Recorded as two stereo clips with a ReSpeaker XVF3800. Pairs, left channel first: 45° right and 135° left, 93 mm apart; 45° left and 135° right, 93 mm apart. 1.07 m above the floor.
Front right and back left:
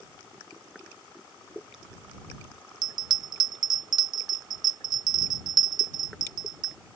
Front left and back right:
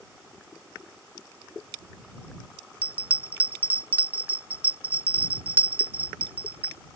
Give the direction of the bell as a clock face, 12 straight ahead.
7 o'clock.